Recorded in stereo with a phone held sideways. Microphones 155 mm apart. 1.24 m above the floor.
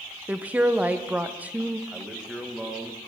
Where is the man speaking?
5° right (ahead or behind), 1.1 m.